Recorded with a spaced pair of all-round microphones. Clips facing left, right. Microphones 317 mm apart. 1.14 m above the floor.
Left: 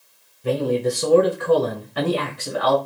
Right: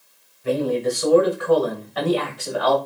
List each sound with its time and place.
0.4 s a man speaking: 45° left (ahead or behind), 6 m; by 2.8 s 30° left (ahead or behind), 6 m